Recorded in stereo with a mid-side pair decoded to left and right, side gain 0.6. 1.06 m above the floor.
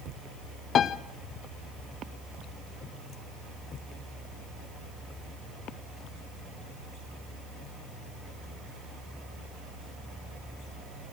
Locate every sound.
0.8 s a piano: 45° left, 0.6 m